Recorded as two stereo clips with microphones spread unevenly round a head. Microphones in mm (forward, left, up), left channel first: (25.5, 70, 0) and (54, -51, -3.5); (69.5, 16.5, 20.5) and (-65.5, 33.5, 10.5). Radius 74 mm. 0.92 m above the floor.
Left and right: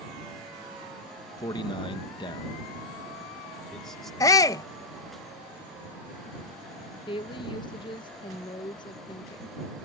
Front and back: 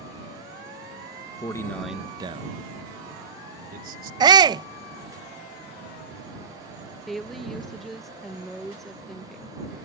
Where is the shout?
155° left.